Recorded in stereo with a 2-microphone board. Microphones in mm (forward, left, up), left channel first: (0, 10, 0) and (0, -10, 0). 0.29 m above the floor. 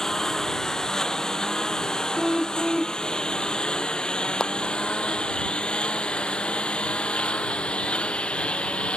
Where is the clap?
40° left (ahead or behind).